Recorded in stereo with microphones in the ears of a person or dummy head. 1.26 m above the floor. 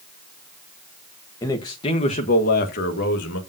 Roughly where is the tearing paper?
No tearing paper in this recording.